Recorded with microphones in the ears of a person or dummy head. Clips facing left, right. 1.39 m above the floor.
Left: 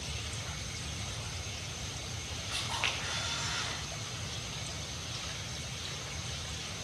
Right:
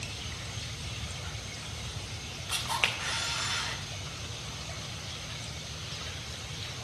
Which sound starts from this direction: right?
A camera shutter, at 2.5 s.